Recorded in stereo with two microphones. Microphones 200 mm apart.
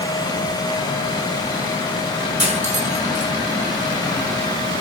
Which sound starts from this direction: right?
Cutlery clinking, at 2.4 s.